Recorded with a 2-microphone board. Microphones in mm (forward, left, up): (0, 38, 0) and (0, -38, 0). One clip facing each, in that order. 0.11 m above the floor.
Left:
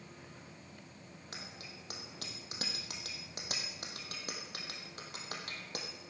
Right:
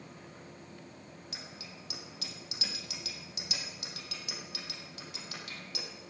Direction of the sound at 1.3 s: 45° left (ahead or behind).